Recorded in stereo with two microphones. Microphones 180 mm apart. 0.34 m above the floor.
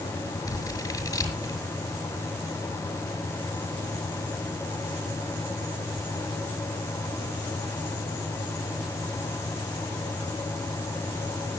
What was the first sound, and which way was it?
Scissors, 20° left (ahead or behind).